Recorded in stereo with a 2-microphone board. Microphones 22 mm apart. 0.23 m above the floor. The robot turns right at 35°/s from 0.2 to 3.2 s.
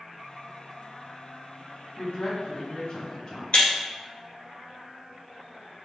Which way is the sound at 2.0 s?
95° left.